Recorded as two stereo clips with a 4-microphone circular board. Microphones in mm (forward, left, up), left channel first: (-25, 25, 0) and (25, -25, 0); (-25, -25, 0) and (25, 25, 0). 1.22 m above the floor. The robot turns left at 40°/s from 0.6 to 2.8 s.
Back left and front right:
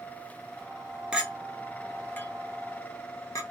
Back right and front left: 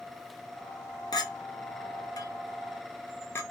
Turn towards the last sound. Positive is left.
turn(degrees=175)